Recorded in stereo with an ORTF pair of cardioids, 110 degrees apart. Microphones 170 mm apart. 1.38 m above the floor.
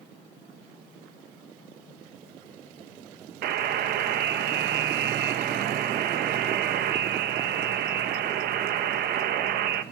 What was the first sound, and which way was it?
A buzzer, 70° right.